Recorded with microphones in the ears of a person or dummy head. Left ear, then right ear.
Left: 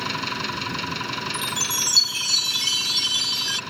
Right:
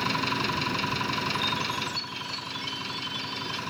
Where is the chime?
70° left (ahead or behind).